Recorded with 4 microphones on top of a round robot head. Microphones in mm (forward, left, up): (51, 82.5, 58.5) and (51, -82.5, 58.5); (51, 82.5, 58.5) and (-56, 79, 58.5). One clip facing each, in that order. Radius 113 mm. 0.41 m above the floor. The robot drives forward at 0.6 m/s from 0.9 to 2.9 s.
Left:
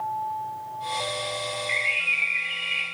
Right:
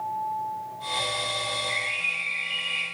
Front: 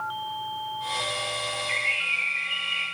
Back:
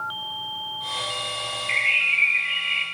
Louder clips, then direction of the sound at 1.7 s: Left 2 dB, back 3 dB; 150° left.